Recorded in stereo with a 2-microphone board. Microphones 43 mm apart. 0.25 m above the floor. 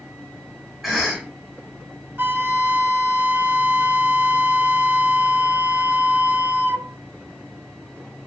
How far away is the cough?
About 1.7 m.